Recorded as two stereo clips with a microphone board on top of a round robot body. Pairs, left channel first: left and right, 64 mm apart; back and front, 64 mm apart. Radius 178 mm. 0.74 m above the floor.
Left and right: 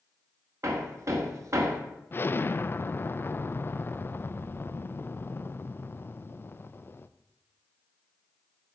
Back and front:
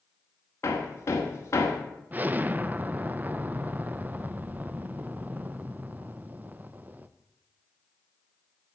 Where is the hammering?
130° right, 1.6 m.